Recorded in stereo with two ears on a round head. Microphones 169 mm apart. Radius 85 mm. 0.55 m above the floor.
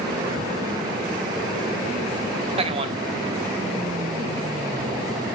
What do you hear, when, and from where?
2.6 s a man speaking: 30° right (ahead or behind), 1.1 m